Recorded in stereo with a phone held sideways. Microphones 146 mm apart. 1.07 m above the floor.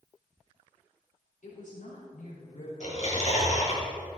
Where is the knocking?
No knocking in this recording.